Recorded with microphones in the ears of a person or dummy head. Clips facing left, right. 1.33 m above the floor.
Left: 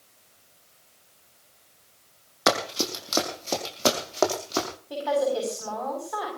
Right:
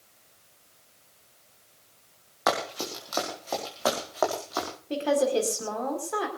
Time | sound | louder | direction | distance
2.5 | running footsteps | left 3 dB | 45° left (ahead or behind) | 4 m
4.9 | a woman speaking | right 1 dB | 40° right (ahead or behind) | 5 m